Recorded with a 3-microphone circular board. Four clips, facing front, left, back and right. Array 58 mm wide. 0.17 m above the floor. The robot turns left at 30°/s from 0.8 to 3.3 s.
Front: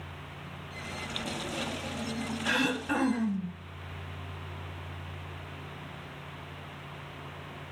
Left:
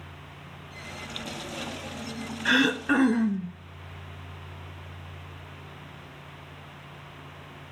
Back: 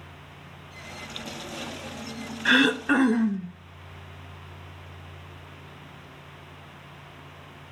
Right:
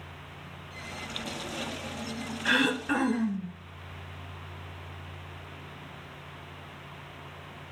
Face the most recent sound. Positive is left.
turn(degrees=145)